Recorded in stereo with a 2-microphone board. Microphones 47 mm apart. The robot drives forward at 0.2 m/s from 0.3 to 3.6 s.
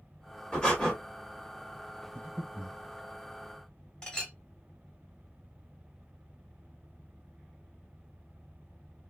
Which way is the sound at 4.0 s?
15° left (ahead or behind).